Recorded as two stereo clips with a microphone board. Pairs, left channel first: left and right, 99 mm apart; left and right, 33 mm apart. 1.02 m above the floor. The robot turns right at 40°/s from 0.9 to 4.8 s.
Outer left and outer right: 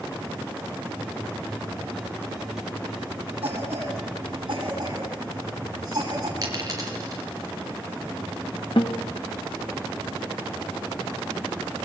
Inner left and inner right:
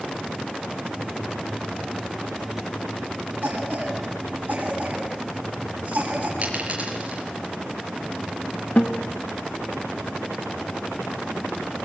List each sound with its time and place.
3.4 s a cough: 80° right, 8 m; by 6.3 s 40° right (ahead or behind), 8 m
6.4 s a dropped coin: 35° right (ahead or behind), 5 m
8.8 s a guitar: 60° left (ahead or behind), 1.6 m